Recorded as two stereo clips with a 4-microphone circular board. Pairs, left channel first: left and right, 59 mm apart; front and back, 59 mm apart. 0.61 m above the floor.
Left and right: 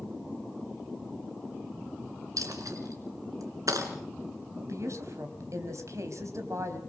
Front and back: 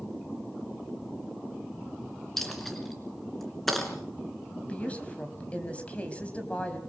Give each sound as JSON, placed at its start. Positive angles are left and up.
{"t": 2.4, "sound": "a dropped coin", "azimuth_deg": -85, "distance_m": 3.0}
{"t": 4.7, "sound": "a woman speaking", "azimuth_deg": -65, "distance_m": 4.0}